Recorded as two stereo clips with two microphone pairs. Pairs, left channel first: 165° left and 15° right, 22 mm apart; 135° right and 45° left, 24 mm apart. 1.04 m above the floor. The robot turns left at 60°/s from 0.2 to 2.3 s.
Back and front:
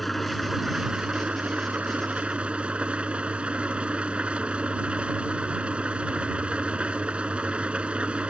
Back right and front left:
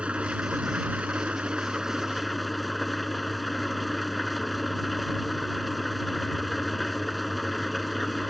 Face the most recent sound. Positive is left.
turn(degrees=-45)